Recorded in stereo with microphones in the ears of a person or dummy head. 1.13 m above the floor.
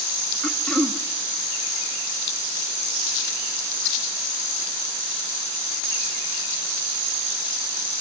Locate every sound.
0.4 s throat clearing: 5° left (ahead or behind), 1.6 m